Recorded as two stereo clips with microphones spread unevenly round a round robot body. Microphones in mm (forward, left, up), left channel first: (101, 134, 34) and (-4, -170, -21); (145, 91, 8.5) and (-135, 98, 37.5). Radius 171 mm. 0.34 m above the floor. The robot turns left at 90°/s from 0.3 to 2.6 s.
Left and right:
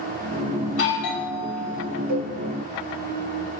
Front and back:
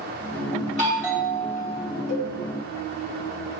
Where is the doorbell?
130° left, 3 m; by 1.9 s 20° left, 3 m.